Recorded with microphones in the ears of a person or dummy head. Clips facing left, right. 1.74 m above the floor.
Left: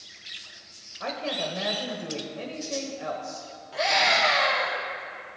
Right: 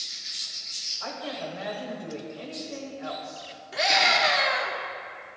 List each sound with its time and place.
1.0 s a woman speaking: 55° left (ahead or behind), 1.3 m
3.7 s a scream: 20° right (ahead or behind), 1.4 m